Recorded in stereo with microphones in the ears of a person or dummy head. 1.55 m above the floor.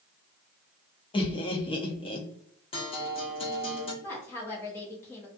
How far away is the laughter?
About 0.6 m.